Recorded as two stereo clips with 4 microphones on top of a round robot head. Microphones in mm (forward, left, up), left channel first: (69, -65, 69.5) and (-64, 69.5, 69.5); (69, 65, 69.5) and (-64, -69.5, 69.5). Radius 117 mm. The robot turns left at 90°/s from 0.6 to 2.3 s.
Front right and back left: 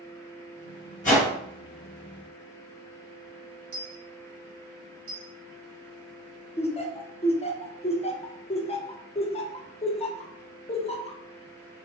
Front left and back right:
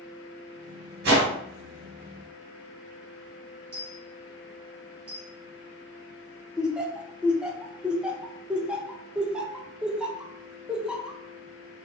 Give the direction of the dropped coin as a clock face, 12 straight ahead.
7 o'clock.